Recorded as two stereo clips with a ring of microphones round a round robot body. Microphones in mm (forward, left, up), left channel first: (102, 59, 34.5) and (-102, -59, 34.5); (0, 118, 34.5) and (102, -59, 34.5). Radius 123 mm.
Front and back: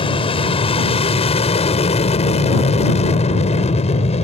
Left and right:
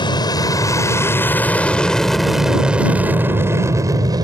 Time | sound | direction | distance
0.0 | an aircraft | 75° left | ?